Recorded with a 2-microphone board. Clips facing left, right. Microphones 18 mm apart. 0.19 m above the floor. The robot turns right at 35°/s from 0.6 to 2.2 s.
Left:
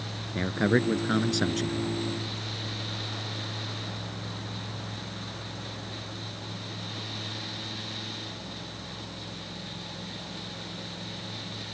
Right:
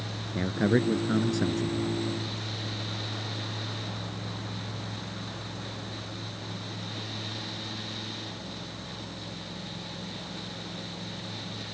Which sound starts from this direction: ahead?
A man speaking, at 0.3 s.